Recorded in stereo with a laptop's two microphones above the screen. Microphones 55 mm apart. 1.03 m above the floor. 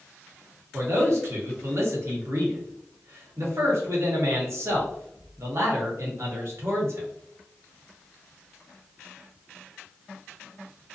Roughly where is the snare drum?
No snare drum in this recording.